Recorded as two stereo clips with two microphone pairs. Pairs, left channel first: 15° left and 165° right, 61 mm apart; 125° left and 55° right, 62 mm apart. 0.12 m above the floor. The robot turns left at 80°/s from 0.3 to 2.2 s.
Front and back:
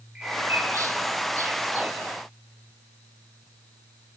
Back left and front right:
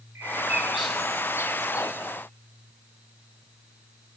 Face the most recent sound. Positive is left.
turn(degrees=120)